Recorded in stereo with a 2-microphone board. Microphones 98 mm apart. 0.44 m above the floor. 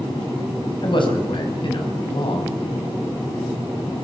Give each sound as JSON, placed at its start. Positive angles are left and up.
{"t": 0.8, "sound": "a man speaking", "side_deg": 55, "distance_m": 3.5}